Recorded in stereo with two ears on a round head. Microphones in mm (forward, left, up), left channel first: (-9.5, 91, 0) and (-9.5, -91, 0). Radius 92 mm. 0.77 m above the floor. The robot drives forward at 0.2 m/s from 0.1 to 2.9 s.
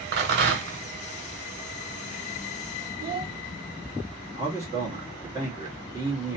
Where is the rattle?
60° right (ahead or behind), 2.0 m; by 0.8 s 55° right (ahead or behind), 2 m.